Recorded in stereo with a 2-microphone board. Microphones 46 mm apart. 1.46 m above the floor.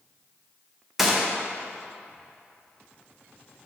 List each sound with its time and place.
1.0 s a gunshot: 5° right (ahead or behind), 0.5 m